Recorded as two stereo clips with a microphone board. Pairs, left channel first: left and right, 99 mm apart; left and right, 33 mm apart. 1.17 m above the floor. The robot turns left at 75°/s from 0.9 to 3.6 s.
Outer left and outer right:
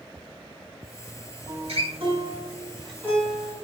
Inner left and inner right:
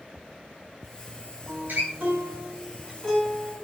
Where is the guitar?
80° right, 5.5 m; by 3.5 s 55° left (ahead or behind), 5.5 m.